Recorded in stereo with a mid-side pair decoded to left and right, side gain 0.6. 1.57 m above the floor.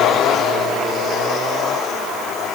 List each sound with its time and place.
Only background noise.